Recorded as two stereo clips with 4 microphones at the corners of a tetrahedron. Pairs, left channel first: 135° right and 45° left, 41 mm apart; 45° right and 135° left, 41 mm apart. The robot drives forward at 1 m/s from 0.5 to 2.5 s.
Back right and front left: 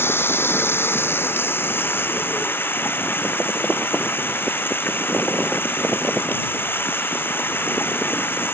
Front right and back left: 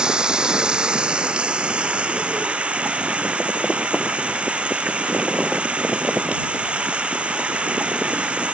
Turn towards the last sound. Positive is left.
turn(degrees=-165)